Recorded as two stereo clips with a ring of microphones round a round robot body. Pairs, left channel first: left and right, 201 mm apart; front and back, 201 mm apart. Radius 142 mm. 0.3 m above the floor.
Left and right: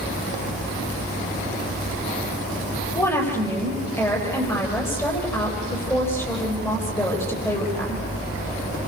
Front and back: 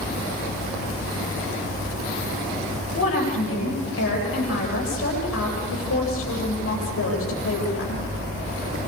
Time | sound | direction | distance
2.9 | a woman speaking | 10° left | 9.5 m